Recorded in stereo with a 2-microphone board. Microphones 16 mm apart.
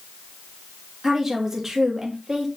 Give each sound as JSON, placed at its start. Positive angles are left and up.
{"t": 1.0, "sound": "a woman speaking", "side_deg": -20, "distance_m": 2.5}